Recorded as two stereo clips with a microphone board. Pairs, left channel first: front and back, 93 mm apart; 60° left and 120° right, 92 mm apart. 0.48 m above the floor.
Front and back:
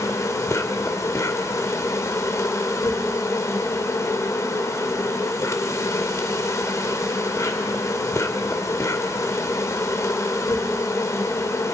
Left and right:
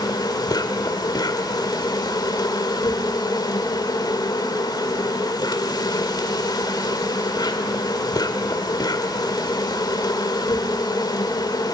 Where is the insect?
45° left, 1.8 m.